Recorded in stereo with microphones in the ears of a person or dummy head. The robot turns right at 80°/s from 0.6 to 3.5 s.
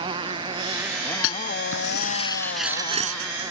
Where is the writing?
70° left (ahead or behind); by 3.5 s 70° right (ahead or behind).